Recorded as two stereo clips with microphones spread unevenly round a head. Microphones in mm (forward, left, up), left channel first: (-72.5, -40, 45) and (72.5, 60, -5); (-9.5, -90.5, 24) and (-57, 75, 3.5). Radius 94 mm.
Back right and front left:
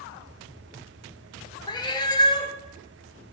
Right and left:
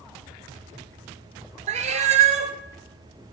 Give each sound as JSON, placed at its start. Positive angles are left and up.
{"t": 1.7, "sound": "a cat meowing", "azimuth_deg": 155, "distance_m": 0.6}